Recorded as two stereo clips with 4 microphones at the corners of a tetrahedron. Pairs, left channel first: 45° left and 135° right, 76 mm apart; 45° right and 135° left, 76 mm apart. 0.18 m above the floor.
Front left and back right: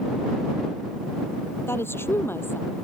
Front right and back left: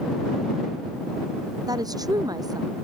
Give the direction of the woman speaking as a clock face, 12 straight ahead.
9 o'clock.